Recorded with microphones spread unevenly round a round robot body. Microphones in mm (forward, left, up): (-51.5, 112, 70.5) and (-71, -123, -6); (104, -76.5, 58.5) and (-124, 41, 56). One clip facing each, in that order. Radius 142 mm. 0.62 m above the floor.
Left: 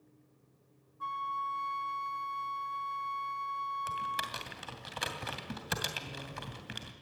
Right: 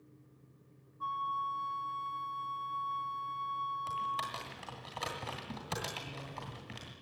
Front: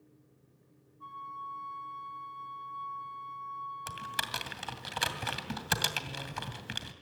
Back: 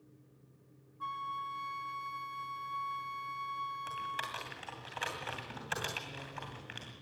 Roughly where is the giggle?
I don't hear a giggle.